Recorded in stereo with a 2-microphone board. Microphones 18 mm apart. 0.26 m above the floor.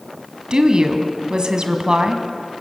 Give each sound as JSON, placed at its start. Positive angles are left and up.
{"t": 0.5, "sound": "a woman speaking", "side_deg": -50, "distance_m": 1.8}